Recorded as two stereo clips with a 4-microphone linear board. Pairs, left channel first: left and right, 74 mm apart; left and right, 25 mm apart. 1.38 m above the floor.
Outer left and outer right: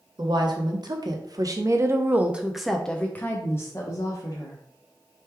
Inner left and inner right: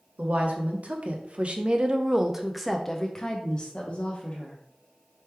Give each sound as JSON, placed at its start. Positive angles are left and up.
{"t": 0.2, "sound": "a woman speaking", "side_deg": -75, "distance_m": 1.2}